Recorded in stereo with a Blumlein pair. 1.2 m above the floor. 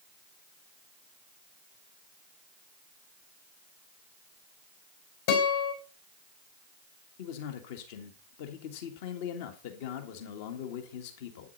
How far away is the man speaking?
About 1.7 m.